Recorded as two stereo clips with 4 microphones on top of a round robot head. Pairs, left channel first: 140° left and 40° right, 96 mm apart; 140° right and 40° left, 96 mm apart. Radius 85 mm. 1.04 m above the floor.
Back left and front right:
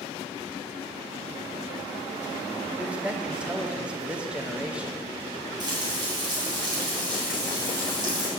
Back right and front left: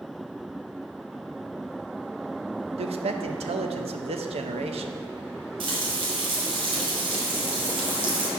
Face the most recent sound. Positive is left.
turn(degrees=5)